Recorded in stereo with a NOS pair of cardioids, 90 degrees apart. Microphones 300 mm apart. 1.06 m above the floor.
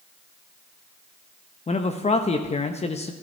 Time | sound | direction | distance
1.7 | a man speaking | 20° left | 0.9 m